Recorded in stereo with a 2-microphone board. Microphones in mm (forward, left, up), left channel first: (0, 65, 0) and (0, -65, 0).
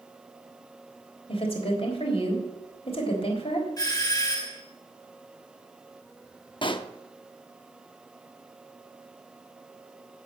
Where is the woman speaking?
50° left (ahead or behind), 3 m.